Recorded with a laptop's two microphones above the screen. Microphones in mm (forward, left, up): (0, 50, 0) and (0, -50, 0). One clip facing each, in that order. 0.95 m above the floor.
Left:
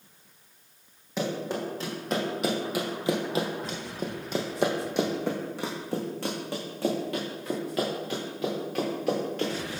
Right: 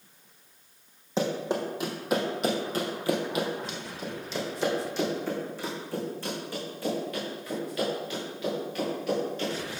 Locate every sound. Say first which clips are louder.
1.2 s running footsteps: right 2 dB; 25° right (ahead or behind), 1.7 m; by 9.7 s 75° left (ahead or behind), 5 m